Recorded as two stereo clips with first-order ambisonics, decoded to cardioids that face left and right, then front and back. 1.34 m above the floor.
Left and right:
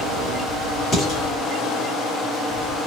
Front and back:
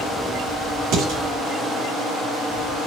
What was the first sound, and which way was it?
Dishes clattering, 155° left.